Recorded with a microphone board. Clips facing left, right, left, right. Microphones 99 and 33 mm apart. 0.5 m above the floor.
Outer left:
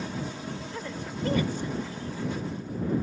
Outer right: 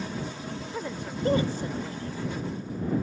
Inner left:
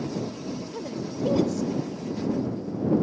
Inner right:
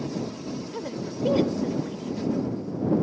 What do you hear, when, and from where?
0.7 s a woman speaking: 15° right (ahead or behind); by 2.1 s 45° right (ahead or behind)